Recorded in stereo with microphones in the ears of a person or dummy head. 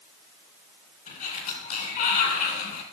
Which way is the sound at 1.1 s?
45° left (ahead or behind).